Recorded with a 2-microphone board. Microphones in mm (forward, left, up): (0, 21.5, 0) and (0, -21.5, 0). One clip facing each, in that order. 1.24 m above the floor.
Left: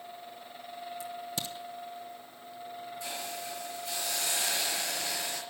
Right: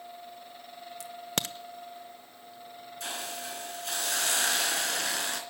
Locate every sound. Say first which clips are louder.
1.0 s a crack: right 6 dB; 65° right (ahead or behind), 0.9 m
3.0 s a hiss: right 3 dB; 70° right (ahead or behind), 3.5 m